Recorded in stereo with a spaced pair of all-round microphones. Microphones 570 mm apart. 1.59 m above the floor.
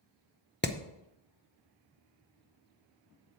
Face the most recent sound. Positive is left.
turn(degrees=20)  # may be behind; listen again after turning